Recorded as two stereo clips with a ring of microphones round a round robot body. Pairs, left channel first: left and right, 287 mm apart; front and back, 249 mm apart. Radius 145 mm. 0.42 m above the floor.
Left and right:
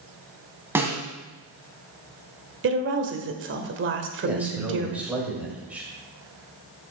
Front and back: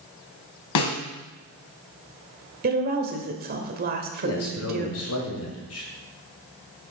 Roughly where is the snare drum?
Ahead.